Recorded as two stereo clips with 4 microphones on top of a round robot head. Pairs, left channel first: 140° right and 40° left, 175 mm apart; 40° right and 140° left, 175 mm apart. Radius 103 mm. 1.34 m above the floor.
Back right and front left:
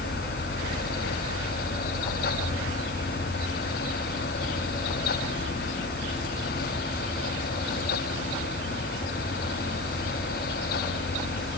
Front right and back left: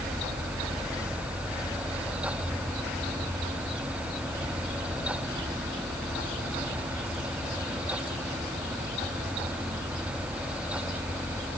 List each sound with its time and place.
Only background noise.